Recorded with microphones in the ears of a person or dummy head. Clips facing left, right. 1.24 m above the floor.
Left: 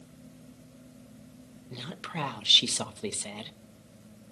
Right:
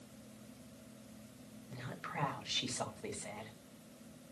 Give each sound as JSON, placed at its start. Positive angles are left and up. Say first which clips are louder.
{"t": 1.7, "sound": "a woman speaking", "louder": "left 6 dB", "side_deg": 45, "distance_m": 1.0}